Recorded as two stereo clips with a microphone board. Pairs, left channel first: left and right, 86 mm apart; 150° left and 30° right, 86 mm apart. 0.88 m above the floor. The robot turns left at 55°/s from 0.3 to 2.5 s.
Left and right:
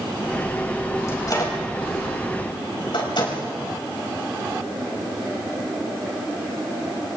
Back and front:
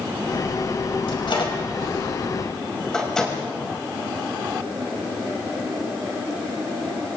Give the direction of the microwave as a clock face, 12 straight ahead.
7 o'clock.